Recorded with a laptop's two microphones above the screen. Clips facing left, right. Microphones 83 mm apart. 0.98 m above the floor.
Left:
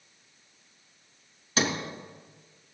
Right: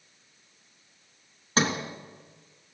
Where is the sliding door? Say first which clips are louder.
Right 2 dB; 40° right (ahead or behind), 3.5 m.